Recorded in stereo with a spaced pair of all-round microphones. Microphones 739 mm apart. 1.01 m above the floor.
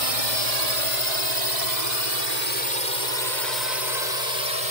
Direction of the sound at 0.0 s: 45° right (ahead or behind).